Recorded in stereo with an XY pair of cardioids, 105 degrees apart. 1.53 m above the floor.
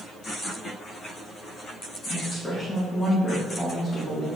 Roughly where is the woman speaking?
Ahead.